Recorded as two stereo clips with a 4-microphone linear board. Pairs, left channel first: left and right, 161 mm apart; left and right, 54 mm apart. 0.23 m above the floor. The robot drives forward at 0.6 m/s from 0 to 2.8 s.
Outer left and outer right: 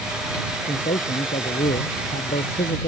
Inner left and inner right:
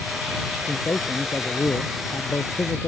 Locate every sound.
0.6 s a man speaking: 55° left (ahead or behind); by 2.9 s 60° left (ahead or behind)